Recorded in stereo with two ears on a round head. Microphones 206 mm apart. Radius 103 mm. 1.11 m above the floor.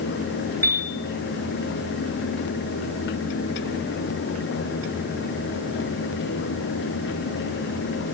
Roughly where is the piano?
Centre.